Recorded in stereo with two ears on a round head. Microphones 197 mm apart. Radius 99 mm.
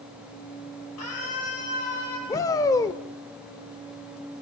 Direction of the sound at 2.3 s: 15° left (ahead or behind).